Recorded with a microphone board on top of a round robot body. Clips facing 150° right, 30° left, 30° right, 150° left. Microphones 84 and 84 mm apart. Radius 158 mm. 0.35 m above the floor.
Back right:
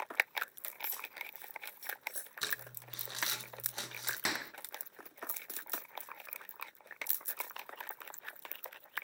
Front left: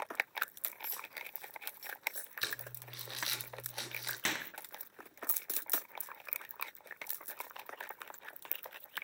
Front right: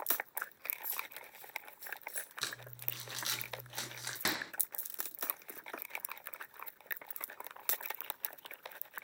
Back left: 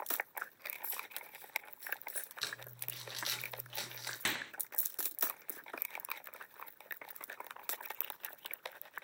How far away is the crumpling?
About 2.5 m.